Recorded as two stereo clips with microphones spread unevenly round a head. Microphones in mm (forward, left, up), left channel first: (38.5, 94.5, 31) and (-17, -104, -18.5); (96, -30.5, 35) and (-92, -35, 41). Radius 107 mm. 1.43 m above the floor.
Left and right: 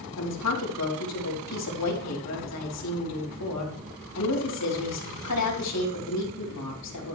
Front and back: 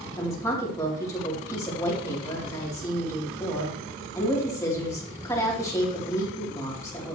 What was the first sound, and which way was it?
A woman speaking, 75° left.